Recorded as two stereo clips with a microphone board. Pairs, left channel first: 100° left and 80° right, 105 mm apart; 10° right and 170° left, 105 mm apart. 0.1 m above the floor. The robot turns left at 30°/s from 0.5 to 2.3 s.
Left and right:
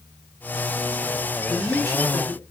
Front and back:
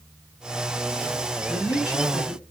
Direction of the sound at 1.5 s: 35° right.